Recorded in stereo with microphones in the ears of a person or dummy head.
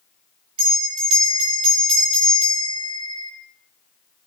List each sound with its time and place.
0.6 s a bell: 35° right (ahead or behind), 3 m